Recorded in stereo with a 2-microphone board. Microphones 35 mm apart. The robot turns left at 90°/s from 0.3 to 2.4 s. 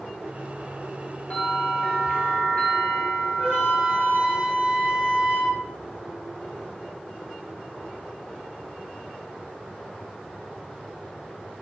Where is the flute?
50° right (ahead or behind), 1.5 m.